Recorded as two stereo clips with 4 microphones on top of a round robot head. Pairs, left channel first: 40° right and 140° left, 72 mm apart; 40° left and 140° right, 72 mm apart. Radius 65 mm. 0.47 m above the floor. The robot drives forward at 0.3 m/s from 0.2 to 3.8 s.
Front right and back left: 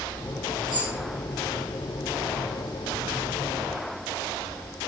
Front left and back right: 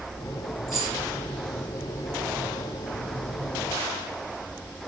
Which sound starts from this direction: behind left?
Keys jangling, at 0.7 s.